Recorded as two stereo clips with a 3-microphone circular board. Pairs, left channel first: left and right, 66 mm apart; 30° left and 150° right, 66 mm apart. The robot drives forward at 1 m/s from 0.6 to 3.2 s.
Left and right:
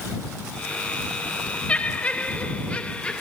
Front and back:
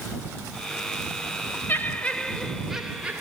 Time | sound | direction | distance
1.7 | laughter | 40° left | 1.5 m